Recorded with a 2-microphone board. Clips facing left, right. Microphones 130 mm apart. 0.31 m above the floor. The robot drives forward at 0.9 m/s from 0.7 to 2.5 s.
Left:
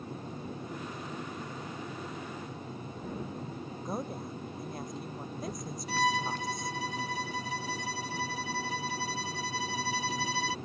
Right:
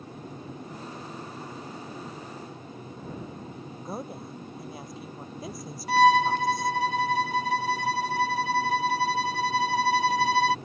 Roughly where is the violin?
Right.